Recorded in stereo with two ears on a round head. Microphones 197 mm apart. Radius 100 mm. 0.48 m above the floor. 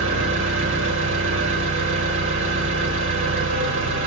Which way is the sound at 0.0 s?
65° right (ahead or behind).